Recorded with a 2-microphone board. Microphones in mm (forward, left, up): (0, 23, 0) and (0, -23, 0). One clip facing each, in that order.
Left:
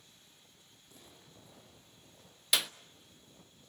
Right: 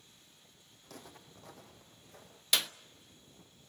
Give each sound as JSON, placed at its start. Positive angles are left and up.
{"t": 0.8, "sound": "footsteps", "side_deg": -70, "distance_m": 4.0}
{"t": 2.5, "sound": "a clap", "side_deg": 5, "distance_m": 0.6}